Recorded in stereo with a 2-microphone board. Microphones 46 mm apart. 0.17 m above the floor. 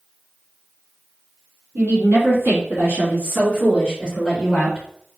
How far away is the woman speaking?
About 2.5 m.